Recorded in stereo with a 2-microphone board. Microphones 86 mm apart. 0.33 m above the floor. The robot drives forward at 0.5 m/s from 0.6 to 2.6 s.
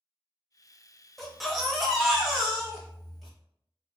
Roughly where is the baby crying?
Centre.